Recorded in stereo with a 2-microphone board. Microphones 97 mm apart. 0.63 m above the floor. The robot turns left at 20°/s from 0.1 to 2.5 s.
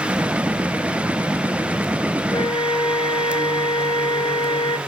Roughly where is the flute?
Left.